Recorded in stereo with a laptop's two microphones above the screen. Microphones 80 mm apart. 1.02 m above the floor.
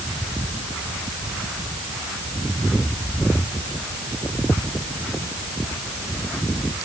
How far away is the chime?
No chime in this recording.